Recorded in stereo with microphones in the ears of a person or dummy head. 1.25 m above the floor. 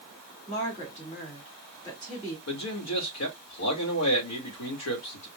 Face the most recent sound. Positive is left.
turn(degrees=80)